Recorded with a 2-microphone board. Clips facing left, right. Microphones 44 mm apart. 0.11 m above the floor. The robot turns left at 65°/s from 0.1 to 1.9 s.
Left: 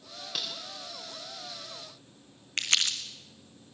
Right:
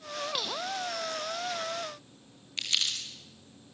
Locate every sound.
0.3 s cutlery clinking: 5° right (ahead or behind), 7.5 m; by 0.5 s 5° left (ahead or behind), 7.5 m
2.6 s crumpling: 60° left (ahead or behind), 2.5 m